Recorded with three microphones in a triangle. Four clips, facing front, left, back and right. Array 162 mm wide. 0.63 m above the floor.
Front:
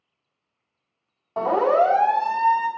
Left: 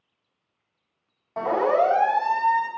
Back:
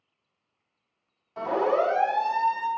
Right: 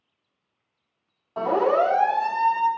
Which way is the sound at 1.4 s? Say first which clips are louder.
Even, front 6 dB; 10° left.